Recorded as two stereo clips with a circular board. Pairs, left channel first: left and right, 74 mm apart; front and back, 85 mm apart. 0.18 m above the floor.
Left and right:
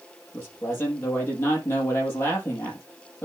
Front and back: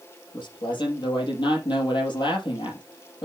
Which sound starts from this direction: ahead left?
A man speaking, at 0.3 s.